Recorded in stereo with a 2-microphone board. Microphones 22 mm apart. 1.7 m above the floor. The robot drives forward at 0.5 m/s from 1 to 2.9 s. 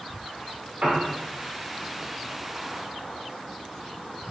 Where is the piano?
65° right (ahead or behind), 1.4 m; by 1.1 s 60° right (ahead or behind), 1.5 m.